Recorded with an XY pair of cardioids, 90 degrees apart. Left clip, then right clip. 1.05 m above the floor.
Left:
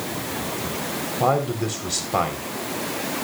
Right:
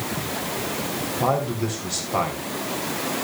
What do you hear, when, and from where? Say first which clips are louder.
1.2 s a man speaking: left 2 dB; 30° left, 3.5 m